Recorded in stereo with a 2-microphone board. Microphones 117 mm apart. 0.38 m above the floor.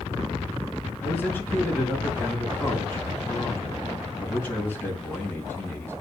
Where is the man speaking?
15° left (ahead or behind), 4 m.